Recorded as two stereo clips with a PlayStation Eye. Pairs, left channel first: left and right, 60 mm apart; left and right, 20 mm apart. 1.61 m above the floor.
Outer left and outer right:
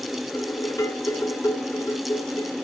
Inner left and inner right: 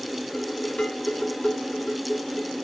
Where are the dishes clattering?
65° left (ahead or behind), 2.5 m.